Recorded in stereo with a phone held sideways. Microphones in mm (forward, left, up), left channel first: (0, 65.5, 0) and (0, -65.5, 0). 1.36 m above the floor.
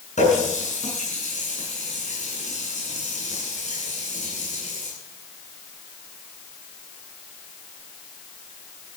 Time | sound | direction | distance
0.2 | a running tap | 60° left (ahead or behind) | 9.5 m